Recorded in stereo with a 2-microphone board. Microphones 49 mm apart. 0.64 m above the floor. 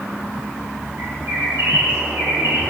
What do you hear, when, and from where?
1.0 s a bird: 75° right (ahead or behind), 5 m